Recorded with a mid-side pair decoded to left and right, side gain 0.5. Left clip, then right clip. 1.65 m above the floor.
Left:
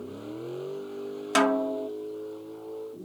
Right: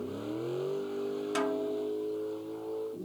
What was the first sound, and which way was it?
A vehicle, 10° right.